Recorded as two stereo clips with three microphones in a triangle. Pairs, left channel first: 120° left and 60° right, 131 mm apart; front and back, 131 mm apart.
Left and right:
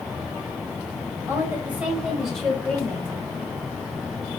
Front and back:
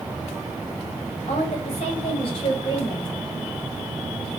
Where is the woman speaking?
5° left, 1.8 m; by 3.2 s 55° left, 1.8 m.